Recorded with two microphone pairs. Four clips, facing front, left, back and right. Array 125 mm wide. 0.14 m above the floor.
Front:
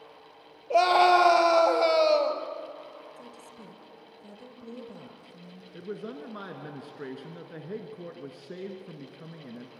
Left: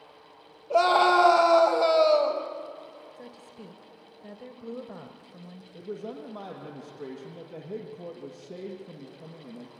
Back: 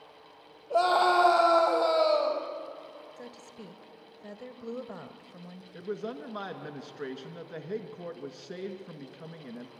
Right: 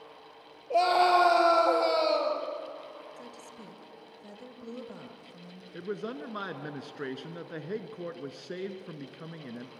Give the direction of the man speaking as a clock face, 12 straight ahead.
4 o'clock.